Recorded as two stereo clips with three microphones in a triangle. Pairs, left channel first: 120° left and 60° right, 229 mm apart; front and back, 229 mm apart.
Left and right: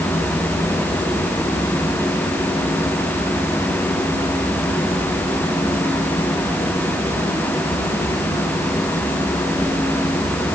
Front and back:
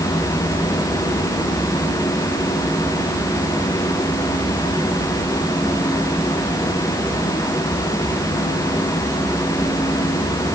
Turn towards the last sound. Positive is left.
No sound to turn to.